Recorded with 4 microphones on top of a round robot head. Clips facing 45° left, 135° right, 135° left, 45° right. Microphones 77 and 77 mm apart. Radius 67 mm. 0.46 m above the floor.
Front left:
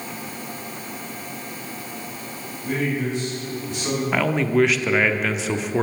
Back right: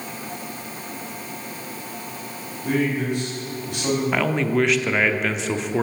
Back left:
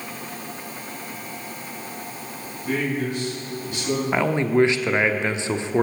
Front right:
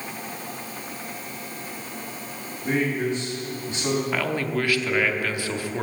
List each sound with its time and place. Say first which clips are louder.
2.6 s a man speaking: back right 2 dB, front right 1 dB; 110° right, 4 m
4.1 s a man speaking: front left 5 dB, back left 6 dB; 130° left, 0.7 m